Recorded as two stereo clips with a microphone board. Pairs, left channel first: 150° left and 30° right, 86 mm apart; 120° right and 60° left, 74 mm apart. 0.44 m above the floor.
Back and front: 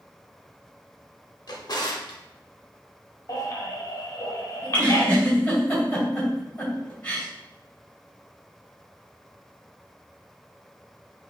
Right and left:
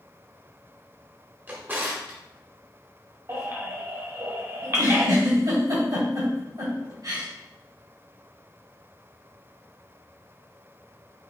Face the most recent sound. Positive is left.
turn(degrees=80)